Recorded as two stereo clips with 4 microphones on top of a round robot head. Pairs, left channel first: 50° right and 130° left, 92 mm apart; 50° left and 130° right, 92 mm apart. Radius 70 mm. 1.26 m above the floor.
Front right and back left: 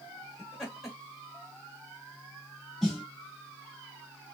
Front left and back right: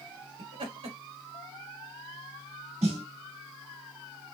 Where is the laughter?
140° right, 1.5 m.